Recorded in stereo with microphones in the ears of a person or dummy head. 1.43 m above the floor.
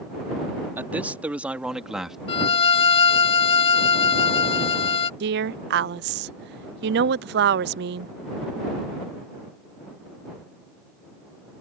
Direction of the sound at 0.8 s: 10° right (ahead or behind).